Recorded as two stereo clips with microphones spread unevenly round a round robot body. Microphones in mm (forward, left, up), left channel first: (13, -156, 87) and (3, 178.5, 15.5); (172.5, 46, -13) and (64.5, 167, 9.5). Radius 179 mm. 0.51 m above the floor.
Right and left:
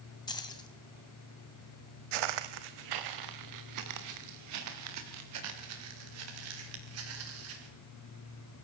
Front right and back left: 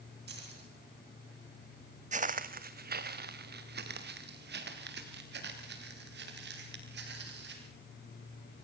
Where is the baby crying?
I don't hear a baby crying.